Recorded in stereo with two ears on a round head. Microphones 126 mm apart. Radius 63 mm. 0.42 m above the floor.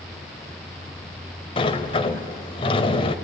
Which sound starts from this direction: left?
A sliding door, at 1.6 s.